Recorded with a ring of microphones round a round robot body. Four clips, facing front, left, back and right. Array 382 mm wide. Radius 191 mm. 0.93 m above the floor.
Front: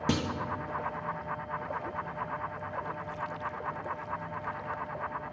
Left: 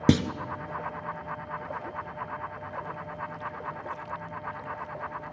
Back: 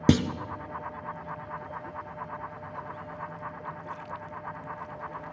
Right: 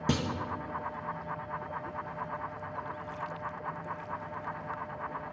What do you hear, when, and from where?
0.1 s a clunk: 135° left, 0.7 m